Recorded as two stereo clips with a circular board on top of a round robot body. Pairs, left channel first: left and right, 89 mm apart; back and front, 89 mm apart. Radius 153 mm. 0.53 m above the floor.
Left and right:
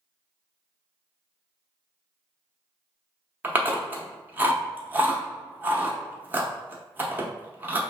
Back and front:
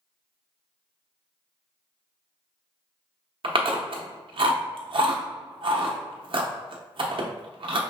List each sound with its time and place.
3.4 s chewing: 25° right, 0.8 m